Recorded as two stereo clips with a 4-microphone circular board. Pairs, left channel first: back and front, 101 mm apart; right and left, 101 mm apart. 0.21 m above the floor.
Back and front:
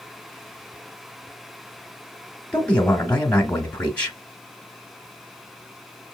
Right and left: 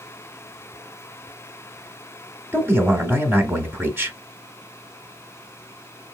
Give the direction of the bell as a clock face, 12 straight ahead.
I don't hear a bell.